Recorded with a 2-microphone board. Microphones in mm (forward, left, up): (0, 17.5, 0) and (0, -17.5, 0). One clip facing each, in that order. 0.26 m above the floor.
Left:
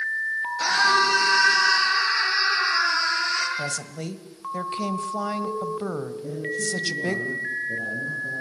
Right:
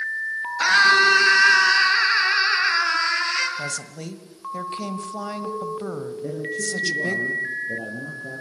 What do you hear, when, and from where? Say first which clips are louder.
0.6 s a scream: right 5 dB; 40° right (ahead or behind), 5 m
3.6 s a woman speaking: even; 15° left (ahead or behind), 1.3 m
6.2 s a man speaking: right 3 dB; 35° right (ahead or behind), 6 m